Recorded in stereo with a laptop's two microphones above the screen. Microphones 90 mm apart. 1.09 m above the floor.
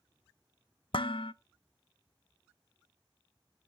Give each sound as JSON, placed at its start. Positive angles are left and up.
{"t": 0.9, "sound": "dishes clattering", "side_deg": 70, "distance_m": 0.6}